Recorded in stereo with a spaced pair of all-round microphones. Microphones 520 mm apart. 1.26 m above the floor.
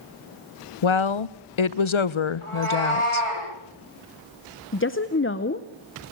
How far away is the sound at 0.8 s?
About 0.7 m.